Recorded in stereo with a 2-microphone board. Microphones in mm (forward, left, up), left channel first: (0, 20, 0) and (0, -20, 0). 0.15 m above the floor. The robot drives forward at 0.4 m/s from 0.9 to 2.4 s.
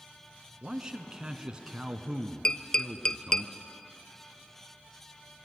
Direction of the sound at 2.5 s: 25° left (ahead or behind).